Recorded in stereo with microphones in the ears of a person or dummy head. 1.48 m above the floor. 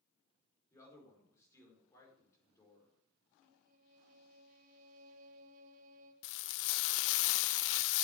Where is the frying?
70° left (ahead or behind), 0.5 m.